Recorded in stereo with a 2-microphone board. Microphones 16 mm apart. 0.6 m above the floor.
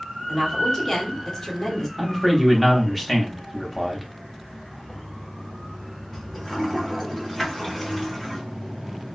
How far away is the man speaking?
About 0.9 m.